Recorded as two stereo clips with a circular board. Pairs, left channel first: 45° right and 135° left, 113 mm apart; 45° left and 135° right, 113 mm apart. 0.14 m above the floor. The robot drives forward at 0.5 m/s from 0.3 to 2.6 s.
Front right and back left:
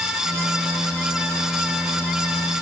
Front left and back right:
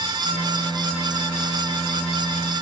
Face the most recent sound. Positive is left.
No sound to turn to.